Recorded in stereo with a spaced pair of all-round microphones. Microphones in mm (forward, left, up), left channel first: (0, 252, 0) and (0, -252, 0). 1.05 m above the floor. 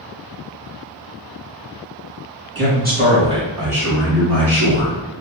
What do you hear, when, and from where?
2.5 s a man speaking: 25° right (ahead or behind), 1.7 m; by 5.0 s 10° left (ahead or behind), 2 m